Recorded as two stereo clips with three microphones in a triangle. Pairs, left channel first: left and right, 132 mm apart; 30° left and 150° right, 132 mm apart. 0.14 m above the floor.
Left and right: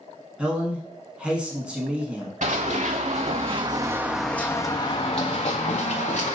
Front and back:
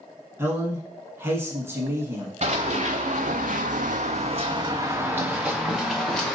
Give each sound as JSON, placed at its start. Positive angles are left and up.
{"t": 0.4, "sound": "a man speaking", "azimuth_deg": -155, "distance_m": 1.1}
{"t": 2.4, "sound": "running footsteps", "azimuth_deg": -115, "distance_m": 1.2}